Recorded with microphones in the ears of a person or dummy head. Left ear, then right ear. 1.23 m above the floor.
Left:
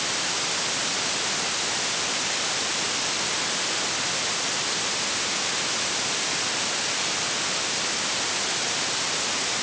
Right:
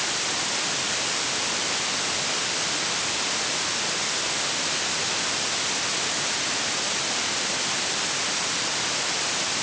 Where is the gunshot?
No gunshot in this recording.